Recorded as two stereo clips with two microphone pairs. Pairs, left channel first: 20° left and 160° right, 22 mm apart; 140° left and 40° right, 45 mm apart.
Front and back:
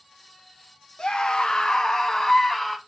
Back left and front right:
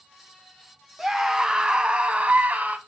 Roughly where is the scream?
Ahead left.